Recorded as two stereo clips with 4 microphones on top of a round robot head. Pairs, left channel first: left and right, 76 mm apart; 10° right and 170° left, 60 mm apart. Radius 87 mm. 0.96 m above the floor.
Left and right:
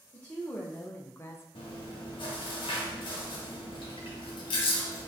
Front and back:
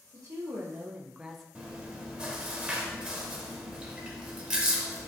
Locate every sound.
0.1 s a woman speaking: 165° left, 1.0 m; by 1.4 s 75° left, 0.7 m
1.6 s chewing: 95° left, 0.9 m